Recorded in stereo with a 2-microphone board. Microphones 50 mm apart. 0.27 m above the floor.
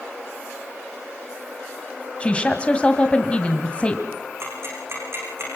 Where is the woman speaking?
25° left (ahead or behind), 1.7 m.